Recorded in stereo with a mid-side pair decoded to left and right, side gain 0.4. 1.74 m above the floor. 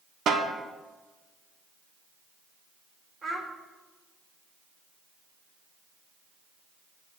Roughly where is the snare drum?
Ahead right.